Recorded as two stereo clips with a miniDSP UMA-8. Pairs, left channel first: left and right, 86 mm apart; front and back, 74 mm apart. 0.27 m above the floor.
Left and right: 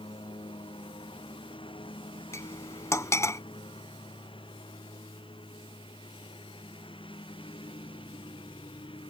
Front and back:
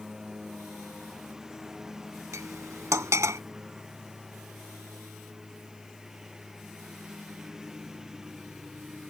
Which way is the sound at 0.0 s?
95° left.